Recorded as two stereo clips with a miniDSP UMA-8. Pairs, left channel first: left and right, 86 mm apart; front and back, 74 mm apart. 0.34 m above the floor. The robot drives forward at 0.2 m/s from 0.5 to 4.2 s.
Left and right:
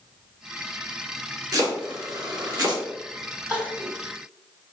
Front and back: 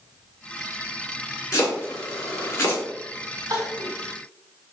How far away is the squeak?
No squeak in this recording.